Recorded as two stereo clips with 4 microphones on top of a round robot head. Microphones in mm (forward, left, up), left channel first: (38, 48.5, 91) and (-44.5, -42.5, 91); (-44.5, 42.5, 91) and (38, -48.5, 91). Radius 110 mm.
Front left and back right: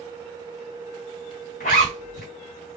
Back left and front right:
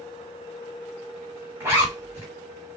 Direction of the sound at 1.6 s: 25° left.